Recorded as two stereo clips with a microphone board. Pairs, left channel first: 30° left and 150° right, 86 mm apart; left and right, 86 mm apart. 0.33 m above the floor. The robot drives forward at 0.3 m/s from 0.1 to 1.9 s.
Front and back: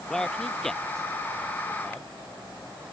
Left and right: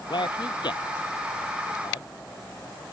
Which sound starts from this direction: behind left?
A man speaking, at 0.1 s.